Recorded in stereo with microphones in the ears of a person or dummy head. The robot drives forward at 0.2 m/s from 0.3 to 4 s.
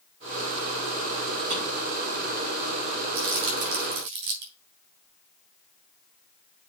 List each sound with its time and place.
1.5 s a drawer: 55° right (ahead or behind), 4.5 m
3.1 s crumpling: 65° right (ahead or behind), 3.5 m